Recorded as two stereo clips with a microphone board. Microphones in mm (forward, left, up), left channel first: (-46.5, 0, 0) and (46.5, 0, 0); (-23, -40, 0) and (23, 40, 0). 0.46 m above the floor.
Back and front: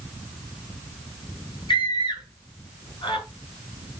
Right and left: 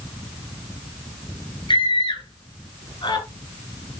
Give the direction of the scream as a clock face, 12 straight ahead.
5 o'clock.